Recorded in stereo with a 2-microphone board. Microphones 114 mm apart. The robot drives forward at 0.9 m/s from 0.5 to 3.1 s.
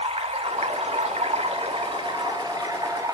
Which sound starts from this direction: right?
Running water, at 0.0 s.